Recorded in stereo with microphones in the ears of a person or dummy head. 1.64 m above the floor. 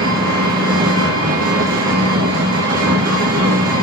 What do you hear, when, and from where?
0.0 s an engine running: 55° right (ahead or behind), 1.7 m